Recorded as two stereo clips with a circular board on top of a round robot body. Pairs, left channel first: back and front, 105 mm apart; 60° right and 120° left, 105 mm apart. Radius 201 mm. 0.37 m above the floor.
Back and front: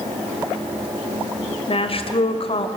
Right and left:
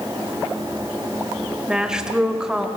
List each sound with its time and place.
1.7 s a woman speaking: 155° right, 2.5 m